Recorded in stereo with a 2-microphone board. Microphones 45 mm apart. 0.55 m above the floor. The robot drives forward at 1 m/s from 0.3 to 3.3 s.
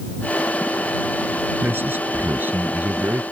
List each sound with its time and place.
1.6 s a man speaking: 50° right (ahead or behind); by 3.2 s 45° right (ahead or behind)